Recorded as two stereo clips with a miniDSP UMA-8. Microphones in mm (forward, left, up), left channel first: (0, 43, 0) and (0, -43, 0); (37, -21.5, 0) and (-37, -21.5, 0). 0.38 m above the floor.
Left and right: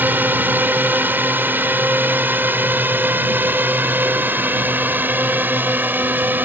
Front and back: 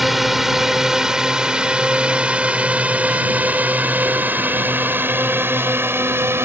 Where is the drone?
95° right; by 6.5 s 145° right.